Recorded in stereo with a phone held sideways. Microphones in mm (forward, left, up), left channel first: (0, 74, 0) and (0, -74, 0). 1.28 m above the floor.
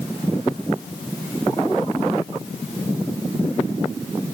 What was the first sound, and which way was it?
Only background noise.